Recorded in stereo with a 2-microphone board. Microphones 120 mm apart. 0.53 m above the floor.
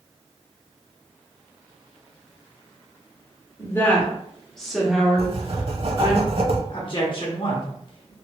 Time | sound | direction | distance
3.6 | a woman speaking | 20° left (ahead or behind) | 1.5 m
5.2 | writing | 55° right (ahead or behind) | 0.6 m
6.7 | a man speaking | 45° left (ahead or behind) | 1.2 m